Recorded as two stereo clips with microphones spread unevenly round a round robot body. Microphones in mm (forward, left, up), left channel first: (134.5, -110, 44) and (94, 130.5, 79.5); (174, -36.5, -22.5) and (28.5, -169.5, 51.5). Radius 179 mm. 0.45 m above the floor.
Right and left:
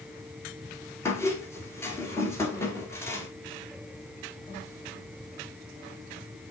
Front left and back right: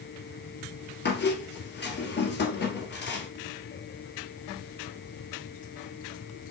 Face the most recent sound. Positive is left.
turn(degrees=0)